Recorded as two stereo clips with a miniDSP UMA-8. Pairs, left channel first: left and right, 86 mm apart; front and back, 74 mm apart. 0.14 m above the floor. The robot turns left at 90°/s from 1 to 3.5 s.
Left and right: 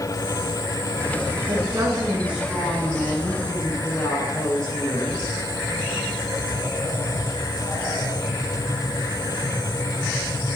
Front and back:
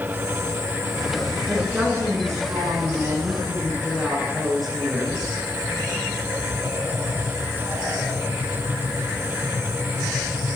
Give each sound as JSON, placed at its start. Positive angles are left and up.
{"t": 1.5, "sound": "a woman speaking", "azimuth_deg": -85, "distance_m": 2.0}